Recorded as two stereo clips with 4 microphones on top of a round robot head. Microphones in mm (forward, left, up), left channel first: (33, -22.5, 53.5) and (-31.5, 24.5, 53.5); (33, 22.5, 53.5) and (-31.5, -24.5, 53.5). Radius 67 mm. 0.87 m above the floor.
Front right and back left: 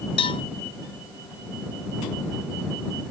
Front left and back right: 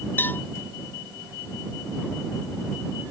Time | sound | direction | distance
0.2 | a cowbell | 30° right | ?